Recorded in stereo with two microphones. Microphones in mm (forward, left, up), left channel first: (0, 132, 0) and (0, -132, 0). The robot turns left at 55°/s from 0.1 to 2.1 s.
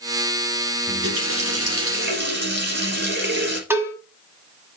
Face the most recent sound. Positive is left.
turn(degrees=-10)  # may be behind; listen again after turning